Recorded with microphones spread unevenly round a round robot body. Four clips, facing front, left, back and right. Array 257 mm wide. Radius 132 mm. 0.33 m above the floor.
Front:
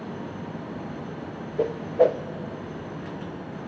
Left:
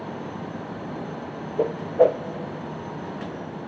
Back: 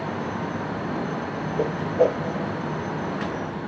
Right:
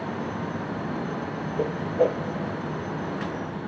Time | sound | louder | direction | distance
1.6 | a whoosh | left 5 dB, front 1 dB | 85° left | 0.5 m